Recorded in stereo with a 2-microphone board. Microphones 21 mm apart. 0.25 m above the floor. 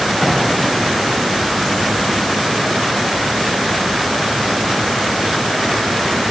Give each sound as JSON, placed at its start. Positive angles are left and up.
{"t": 0.2, "sound": "an explosion", "side_deg": 20, "distance_m": 3.5}